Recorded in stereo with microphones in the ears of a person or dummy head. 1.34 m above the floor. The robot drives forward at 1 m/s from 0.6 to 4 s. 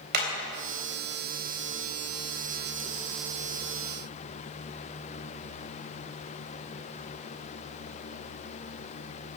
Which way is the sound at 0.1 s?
50° right (ahead or behind).